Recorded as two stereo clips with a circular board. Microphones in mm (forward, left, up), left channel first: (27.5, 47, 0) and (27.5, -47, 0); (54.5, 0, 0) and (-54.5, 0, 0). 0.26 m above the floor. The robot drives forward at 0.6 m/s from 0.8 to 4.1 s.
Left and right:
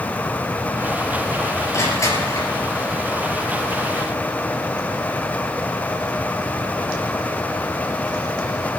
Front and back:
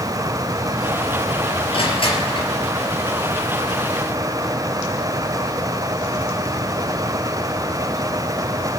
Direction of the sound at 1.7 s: 30° left.